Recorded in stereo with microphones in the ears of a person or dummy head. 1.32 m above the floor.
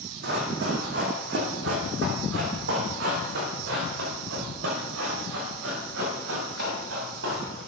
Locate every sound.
0.2 s running footsteps: 60° right (ahead or behind), 3.5 m; by 7.6 s 75° right (ahead or behind), 7.5 m